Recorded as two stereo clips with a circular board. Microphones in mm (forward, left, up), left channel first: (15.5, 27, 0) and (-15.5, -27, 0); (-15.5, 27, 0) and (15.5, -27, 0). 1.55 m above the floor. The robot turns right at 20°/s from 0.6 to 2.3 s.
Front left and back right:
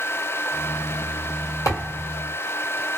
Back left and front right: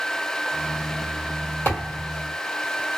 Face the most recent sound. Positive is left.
turn(degrees=80)